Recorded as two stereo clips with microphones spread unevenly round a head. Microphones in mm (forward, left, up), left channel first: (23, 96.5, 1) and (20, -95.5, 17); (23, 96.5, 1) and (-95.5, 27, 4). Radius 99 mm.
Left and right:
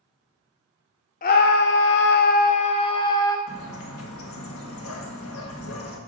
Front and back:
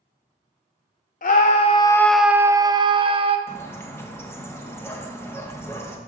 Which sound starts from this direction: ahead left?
A scream, at 1.2 s.